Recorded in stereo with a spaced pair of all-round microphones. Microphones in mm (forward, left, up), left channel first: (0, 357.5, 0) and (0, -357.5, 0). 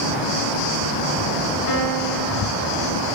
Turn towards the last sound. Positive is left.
turn(degrees=25)  # may be behind; listen again after turning